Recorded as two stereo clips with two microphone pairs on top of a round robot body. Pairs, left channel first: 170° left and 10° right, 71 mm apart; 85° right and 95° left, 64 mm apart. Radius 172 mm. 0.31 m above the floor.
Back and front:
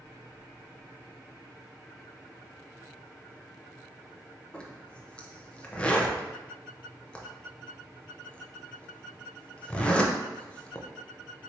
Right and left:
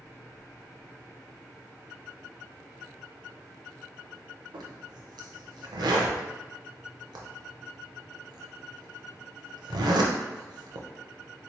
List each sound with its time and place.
4.5 s a zipper: 95° left, 0.5 m